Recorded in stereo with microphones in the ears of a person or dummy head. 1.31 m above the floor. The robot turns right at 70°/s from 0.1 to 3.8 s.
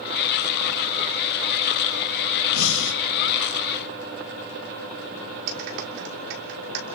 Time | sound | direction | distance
2.5 | breathing | 95° left | 1.3 m
5.5 | a clap | 65° right (ahead or behind) | 2.5 m